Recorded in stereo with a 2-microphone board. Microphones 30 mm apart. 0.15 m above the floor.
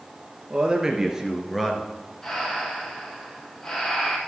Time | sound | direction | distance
0.5 | a man speaking | 25° right (ahead or behind) | 2 m
2.2 | breathing | 20° left (ahead or behind) | 3 m